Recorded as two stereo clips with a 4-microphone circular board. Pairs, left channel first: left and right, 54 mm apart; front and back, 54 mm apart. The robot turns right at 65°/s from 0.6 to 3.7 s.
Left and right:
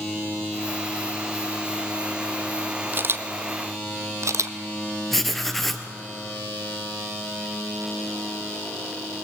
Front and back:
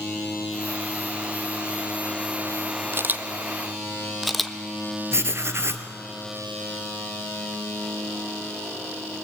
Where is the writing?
175° left, 1.2 m.